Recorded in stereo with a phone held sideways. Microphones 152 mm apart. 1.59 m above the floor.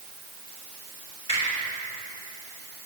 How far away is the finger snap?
About 5.5 m.